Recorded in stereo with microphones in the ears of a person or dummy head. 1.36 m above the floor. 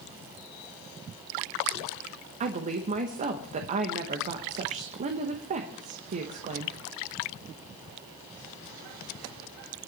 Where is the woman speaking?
35° right (ahead or behind), 1.0 m.